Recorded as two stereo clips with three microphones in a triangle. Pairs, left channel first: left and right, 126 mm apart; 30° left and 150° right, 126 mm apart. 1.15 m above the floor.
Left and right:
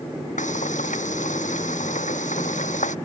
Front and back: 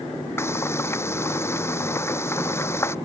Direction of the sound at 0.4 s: 100° left.